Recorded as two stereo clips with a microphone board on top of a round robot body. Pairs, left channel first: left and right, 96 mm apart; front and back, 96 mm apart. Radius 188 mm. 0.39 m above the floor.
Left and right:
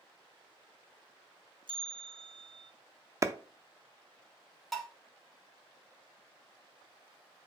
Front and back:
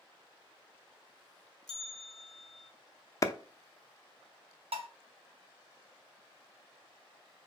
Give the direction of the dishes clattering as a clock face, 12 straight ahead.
6 o'clock.